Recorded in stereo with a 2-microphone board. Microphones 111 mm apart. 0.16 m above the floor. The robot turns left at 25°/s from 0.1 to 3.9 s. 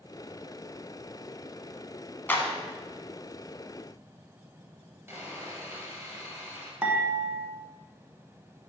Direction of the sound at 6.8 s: 15° right (ahead or behind).